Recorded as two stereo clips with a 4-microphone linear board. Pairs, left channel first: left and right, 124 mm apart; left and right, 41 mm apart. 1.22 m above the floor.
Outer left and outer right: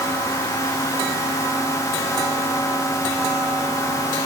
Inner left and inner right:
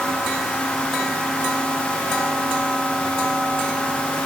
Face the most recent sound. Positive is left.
No sound to turn to.